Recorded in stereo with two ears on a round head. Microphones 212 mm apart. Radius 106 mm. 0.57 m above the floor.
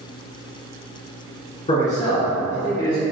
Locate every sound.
1.7 s a man speaking: 30° left (ahead or behind), 1.6 m; by 3.0 s 35° left (ahead or behind), 1.5 m